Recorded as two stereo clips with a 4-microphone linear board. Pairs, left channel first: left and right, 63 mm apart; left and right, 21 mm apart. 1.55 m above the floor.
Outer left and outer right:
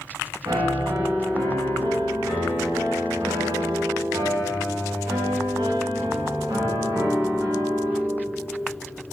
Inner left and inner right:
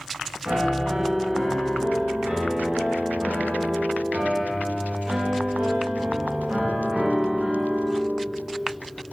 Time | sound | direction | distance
0.5 | a piano | 80° right | 3 m